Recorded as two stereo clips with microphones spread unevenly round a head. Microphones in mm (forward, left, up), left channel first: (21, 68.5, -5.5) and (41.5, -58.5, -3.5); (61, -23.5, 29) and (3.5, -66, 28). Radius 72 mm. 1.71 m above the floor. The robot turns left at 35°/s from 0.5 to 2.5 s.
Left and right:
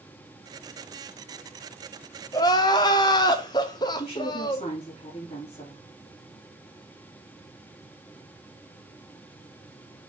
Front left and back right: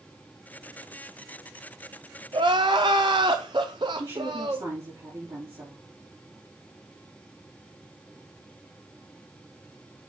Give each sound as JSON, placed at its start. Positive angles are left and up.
{"t": 2.3, "sound": "crying", "azimuth_deg": 165, "distance_m": 0.7}
{"t": 4.0, "sound": "a woman speaking", "azimuth_deg": 160, "distance_m": 4.5}